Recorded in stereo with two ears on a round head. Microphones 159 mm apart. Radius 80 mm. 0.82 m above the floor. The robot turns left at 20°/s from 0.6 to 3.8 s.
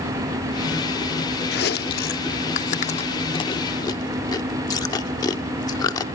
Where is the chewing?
60° left (ahead or behind), 0.6 m; by 6.0 s 20° left (ahead or behind), 0.6 m.